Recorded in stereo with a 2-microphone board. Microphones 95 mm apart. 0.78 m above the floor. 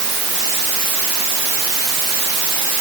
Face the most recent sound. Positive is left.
No sound to turn to.